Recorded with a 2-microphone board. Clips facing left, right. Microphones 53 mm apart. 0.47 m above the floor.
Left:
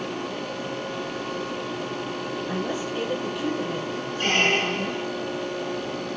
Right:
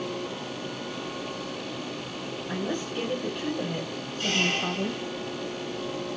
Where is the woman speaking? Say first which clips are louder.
Left 1 dB; 15° left (ahead or behind), 2.5 m; by 5.0 s 20° right (ahead or behind), 3 m.